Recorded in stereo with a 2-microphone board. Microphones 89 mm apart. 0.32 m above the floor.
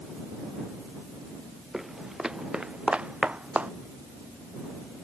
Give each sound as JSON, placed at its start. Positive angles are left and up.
{"t": 1.7, "sound": "footsteps", "side_deg": -5}